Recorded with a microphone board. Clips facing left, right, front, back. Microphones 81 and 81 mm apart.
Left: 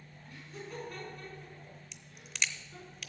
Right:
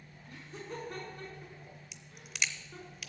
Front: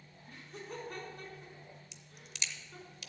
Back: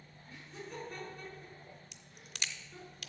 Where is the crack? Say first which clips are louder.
Even, back 1 dB; 175° right, 0.5 m.